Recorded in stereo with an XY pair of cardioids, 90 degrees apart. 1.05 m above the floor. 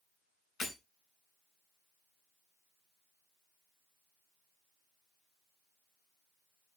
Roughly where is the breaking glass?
Ahead left.